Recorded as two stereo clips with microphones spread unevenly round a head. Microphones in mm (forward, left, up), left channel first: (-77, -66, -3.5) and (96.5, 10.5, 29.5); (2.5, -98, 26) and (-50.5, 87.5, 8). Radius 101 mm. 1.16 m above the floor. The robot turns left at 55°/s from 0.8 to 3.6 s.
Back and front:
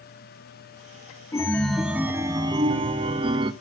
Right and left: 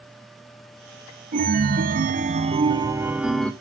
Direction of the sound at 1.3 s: 120° left.